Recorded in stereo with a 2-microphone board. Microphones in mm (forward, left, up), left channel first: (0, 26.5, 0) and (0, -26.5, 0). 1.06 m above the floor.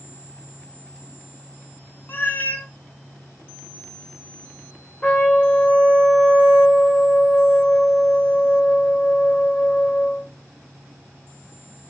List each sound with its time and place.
2.1 s a cat meowing: 35° left (ahead or behind), 0.5 m
5.0 s a trumpet: 20° left (ahead or behind), 0.6 m